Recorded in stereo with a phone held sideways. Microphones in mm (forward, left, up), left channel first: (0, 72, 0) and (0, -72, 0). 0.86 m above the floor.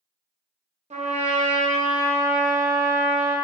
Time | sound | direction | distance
0.9 | a trumpet | 50° right (ahead or behind) | 0.7 m